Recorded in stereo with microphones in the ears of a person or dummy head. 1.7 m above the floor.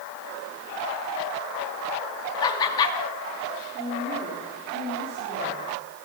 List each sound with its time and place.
2.4 s laughter: 25° left (ahead or behind), 3.5 m
3.7 s a woman speaking: 55° right (ahead or behind), 5 m